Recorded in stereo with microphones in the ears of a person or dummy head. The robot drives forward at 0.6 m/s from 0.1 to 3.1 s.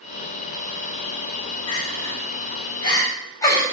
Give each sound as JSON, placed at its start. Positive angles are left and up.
{"t": 1.7, "sound": "crying", "side_deg": 25, "distance_m": 1.8}